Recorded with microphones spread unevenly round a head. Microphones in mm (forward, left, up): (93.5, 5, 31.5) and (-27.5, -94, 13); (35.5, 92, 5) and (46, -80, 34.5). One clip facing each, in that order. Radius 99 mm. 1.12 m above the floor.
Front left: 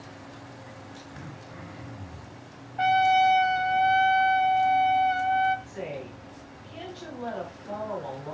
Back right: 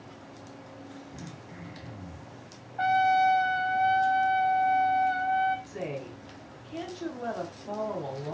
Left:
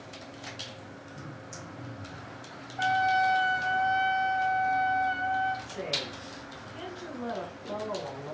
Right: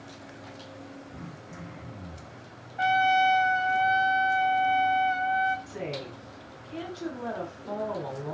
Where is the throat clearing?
85° right, 4.5 m.